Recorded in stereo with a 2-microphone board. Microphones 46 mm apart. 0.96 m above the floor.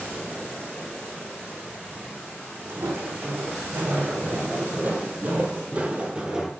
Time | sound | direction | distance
2.7 | footsteps | 65° right (ahead or behind) | 2.5 m